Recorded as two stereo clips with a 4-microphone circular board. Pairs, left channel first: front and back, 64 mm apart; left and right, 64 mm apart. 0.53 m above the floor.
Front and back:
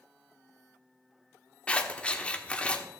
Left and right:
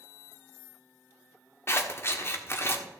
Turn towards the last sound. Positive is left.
turn(degrees=65)